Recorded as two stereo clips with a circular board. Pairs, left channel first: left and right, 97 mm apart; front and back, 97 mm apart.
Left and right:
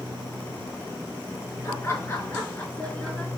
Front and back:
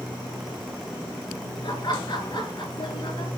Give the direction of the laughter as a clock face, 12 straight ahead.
11 o'clock.